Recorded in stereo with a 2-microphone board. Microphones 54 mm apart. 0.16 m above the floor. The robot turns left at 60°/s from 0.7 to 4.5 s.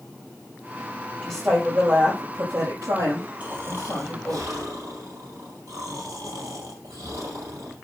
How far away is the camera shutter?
No camera shutter in this recording.